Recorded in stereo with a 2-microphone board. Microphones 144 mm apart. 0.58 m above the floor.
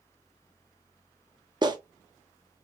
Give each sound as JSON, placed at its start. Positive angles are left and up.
{"t": 1.6, "sound": "a clap", "side_deg": -30, "distance_m": 0.6}